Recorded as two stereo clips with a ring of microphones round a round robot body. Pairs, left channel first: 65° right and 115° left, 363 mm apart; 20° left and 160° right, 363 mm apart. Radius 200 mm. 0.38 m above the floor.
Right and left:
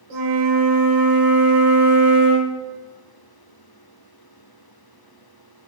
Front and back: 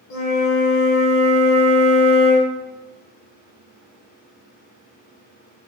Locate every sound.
0.1 s a flute: 70° left, 0.8 m